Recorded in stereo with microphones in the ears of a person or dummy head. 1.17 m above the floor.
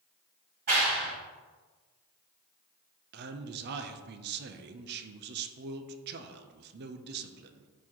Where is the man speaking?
60° right (ahead or behind), 0.6 m.